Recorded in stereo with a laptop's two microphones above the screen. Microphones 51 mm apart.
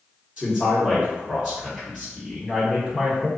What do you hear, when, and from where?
0.4 s a man speaking: 10° right (ahead or behind), 0.9 m